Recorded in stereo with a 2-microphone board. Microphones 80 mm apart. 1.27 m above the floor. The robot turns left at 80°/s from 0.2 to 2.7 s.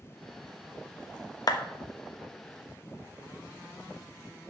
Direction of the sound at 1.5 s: 55° left (ahead or behind).